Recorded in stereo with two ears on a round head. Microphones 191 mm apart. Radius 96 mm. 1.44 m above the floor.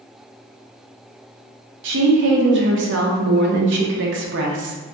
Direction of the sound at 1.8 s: 55° right (ahead or behind).